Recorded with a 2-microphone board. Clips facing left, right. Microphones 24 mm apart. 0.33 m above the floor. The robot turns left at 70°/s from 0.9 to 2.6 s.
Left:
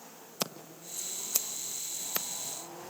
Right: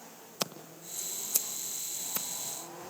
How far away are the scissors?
About 1.2 m.